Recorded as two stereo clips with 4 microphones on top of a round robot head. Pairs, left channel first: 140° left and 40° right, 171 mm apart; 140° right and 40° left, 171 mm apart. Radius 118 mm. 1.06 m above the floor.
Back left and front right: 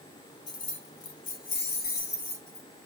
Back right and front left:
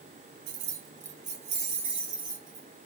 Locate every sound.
0.5 s keys jangling: 70° left, 0.6 m; by 2.7 s 110° left, 1.7 m